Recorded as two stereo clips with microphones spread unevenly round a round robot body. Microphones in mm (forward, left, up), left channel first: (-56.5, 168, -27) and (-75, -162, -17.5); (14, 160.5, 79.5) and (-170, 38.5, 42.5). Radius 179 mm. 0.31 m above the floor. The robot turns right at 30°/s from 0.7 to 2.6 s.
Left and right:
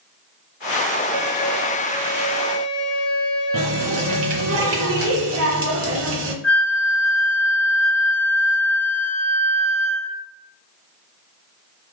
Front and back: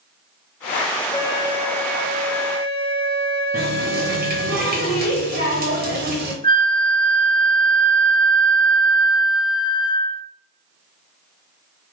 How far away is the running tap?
About 0.9 m.